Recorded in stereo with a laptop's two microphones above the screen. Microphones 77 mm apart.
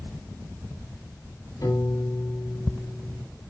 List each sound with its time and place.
1.6 s a piano: 60° left (ahead or behind), 4 m